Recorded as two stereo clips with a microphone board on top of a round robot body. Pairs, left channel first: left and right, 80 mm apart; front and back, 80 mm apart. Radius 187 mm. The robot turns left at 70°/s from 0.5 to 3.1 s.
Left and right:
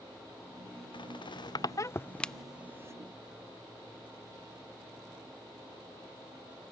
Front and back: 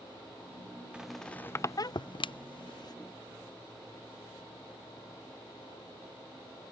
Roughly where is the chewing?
I don't hear chewing.